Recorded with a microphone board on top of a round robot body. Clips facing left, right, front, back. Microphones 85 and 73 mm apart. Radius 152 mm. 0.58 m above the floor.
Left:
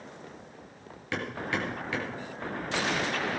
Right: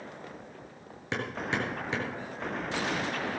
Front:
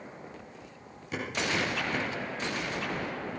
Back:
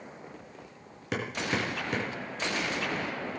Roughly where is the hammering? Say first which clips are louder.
Even, even; behind.